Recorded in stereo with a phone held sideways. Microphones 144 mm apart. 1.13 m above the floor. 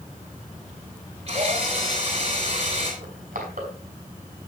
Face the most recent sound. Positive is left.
turn(degrees=-70)  # may be behind; listen again after turning